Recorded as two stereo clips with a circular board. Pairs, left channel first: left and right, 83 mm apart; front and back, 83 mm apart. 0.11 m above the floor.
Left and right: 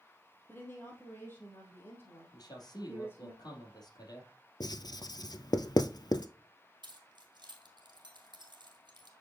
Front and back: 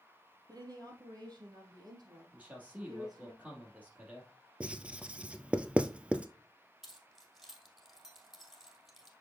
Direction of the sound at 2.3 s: 110° left.